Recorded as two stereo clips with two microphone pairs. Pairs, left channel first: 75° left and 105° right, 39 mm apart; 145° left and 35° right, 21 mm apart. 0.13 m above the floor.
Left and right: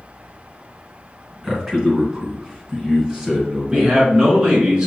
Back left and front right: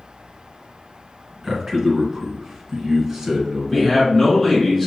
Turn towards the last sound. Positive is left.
turn(degrees=-155)